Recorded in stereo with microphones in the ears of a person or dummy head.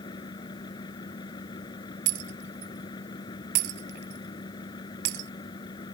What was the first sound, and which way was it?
A fan, 25° left (ahead or behind).